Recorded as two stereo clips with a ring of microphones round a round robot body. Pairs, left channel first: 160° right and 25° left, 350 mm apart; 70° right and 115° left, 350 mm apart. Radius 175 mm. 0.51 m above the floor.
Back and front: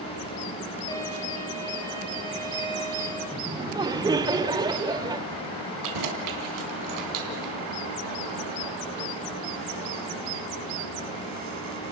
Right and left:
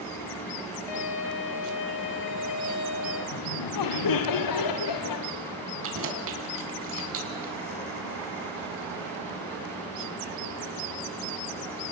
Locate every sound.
0.9 s a violin: 80° right, 4.5 m
3.3 s laughter: 55° right, 1.7 m
5.8 s keys jangling: 60° left, 3.5 m